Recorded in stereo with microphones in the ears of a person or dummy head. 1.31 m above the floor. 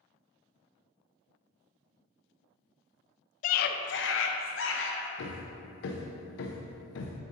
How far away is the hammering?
About 0.8 m.